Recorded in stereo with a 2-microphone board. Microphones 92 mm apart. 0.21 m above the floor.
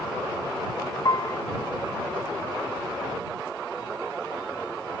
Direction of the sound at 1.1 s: 40° left (ahead or behind).